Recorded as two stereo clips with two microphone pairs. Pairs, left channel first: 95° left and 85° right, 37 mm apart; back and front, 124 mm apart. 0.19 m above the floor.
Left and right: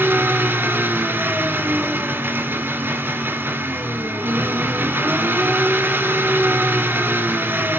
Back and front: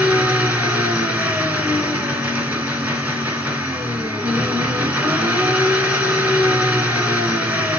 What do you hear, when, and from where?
0.0 s an engine running: 75° right, 1.6 m